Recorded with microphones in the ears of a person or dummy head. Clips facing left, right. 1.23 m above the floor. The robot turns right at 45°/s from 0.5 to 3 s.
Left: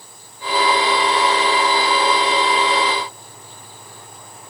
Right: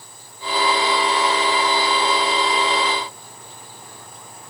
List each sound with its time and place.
Only background noise.